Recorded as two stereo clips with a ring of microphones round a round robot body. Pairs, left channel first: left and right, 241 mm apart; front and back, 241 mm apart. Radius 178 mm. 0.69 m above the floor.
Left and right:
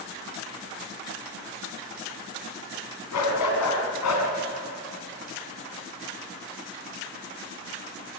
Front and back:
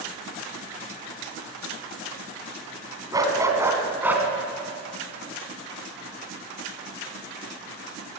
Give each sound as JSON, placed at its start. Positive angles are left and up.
{"t": 3.1, "sound": "a dog barking", "azimuth_deg": 105, "distance_m": 3.0}